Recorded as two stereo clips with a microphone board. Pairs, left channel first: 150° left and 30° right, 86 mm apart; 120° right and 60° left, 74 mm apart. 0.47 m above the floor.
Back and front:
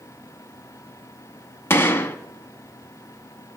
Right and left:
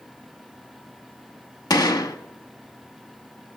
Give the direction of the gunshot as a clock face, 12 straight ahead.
5 o'clock.